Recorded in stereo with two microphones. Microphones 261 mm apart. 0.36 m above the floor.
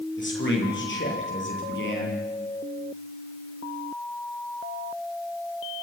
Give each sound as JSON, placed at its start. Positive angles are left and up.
{"t": 0.2, "sound": "a man speaking", "side_deg": 50, "distance_m": 9.5}